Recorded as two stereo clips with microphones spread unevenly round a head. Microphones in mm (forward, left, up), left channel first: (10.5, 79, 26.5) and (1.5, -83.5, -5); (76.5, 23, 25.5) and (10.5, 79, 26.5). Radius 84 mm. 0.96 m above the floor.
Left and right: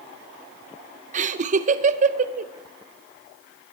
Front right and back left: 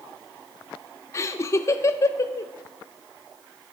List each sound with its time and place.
1.1 s laughter: 90° right, 0.5 m